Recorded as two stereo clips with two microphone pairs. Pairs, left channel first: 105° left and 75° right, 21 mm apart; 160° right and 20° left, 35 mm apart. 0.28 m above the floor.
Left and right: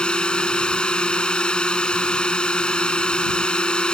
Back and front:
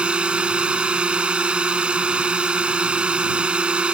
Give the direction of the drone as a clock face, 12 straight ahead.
9 o'clock.